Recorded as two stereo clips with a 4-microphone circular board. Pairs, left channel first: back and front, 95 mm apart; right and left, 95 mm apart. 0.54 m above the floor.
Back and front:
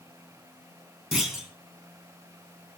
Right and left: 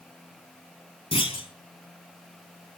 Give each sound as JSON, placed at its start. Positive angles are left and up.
{"t": 1.1, "sound": "a clunk", "azimuth_deg": -85, "distance_m": 3.5}